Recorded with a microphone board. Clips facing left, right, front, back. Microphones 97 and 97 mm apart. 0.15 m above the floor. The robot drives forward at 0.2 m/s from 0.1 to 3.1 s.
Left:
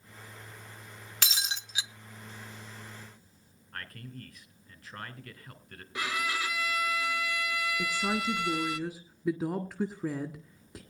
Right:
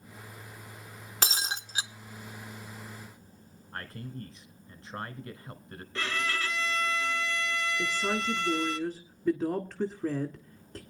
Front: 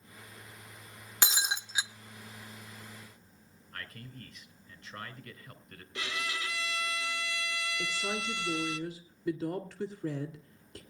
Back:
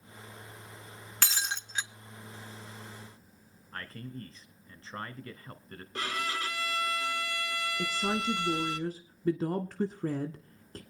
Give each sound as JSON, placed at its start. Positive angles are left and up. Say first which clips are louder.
{"t": 1.2, "sound": "breaking glass", "louder": "right 4 dB, front 2 dB", "azimuth_deg": -60, "distance_m": 0.7}
{"t": 3.7, "sound": "a man speaking", "louder": "right 3 dB, back 5 dB", "azimuth_deg": -140, "distance_m": 1.5}
{"t": 6.0, "sound": "a violin", "louder": "even, back 3 dB", "azimuth_deg": 165, "distance_m": 1.2}
{"t": 7.8, "sound": "a woman speaking", "louder": "even, back 6 dB", "azimuth_deg": 165, "distance_m": 1.3}